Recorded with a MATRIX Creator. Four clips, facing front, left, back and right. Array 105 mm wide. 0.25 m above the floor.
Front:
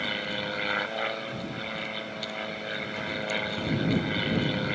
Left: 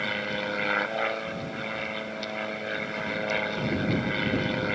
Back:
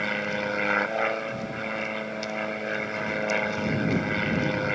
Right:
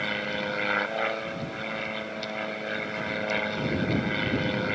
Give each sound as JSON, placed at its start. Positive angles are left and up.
{"t": 0.0, "sound": "an aircraft", "azimuth_deg": 175}